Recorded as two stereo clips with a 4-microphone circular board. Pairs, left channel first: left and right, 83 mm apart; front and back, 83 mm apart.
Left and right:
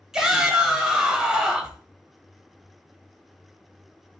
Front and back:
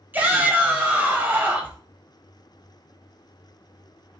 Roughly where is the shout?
Behind.